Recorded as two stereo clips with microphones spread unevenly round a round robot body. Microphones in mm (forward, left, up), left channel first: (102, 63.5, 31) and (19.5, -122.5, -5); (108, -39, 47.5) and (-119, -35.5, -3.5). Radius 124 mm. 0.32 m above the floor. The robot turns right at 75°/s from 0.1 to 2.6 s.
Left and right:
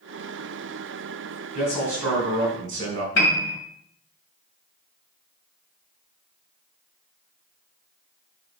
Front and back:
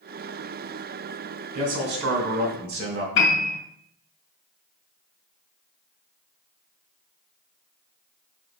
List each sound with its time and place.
1.6 s a man speaking: 125° left, 2.5 m; by 3.0 s 155° right, 2.5 m
3.1 s a piano: 40° left, 2 m